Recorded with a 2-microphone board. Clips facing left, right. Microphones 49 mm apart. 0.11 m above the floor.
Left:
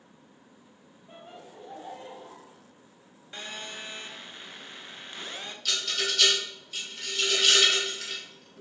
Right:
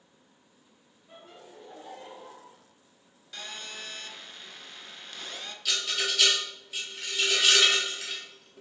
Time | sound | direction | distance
1.1 | laughter | 20° left (ahead or behind) | 2 m
3.3 | a phone buzzing | 20° left (ahead or behind) | 0.5 m
5.7 | a rattle | 10° right (ahead or behind) | 1.4 m